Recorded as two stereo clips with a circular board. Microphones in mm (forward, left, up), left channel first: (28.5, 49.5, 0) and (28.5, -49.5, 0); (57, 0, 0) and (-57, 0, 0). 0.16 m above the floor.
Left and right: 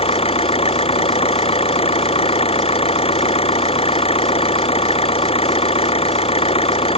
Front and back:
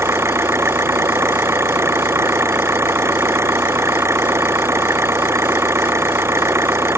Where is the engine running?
110° left.